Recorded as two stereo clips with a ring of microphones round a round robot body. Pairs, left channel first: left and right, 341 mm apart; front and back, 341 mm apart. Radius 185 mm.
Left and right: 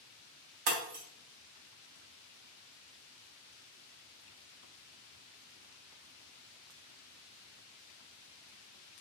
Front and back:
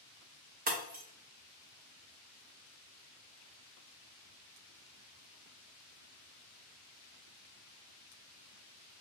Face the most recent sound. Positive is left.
turn(degrees=-115)